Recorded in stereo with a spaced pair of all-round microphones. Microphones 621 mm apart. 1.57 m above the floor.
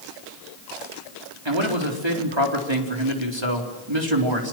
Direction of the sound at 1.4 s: 45° right (ahead or behind).